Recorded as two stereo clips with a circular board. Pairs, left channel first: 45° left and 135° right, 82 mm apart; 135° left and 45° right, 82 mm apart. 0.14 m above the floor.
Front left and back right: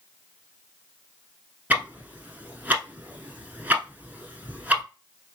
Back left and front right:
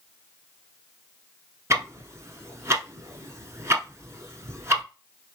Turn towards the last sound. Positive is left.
turn(degrees=-75)